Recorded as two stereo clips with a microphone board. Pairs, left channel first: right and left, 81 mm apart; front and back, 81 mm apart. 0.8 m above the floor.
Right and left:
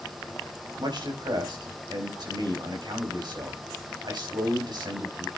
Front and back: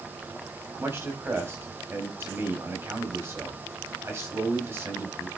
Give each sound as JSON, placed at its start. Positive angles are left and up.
{"t": 0.8, "sound": "a man speaking", "azimuth_deg": 120, "distance_m": 4.0}